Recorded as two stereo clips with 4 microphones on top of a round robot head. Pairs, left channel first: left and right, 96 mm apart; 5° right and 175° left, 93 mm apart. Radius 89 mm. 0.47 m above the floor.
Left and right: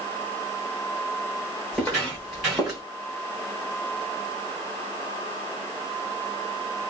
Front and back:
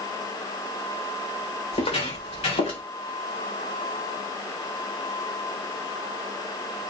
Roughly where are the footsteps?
Ahead.